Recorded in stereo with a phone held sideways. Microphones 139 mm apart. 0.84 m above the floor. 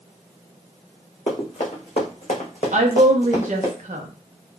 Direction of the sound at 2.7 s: 60° right (ahead or behind).